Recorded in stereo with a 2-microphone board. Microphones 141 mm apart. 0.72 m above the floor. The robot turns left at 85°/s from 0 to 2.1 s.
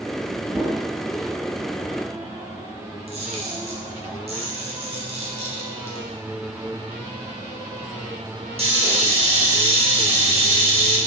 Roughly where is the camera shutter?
Right.